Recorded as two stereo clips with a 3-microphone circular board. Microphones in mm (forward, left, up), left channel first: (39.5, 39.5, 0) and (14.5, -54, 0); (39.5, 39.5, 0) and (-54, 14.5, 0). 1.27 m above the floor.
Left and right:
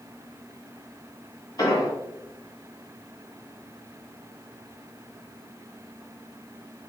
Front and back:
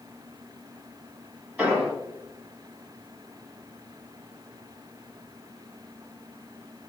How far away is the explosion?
About 1.8 m.